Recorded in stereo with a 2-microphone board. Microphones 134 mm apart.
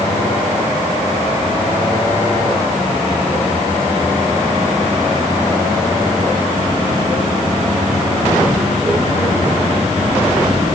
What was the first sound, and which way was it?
Only background noise.